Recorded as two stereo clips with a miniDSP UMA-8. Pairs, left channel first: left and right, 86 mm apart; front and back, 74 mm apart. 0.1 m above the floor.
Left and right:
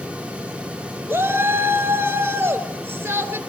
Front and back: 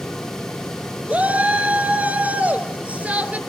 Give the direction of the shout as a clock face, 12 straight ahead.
4 o'clock.